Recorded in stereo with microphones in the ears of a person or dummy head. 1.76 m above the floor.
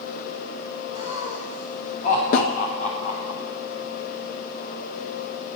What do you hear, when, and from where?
0.9 s laughter: 35° left (ahead or behind), 10 m
2.3 s a snare drum: 55° left (ahead or behind), 2.5 m